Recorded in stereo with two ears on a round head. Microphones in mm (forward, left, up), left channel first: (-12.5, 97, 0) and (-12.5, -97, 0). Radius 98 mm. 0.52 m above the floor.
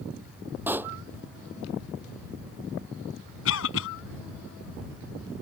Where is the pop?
10° right (ahead or behind).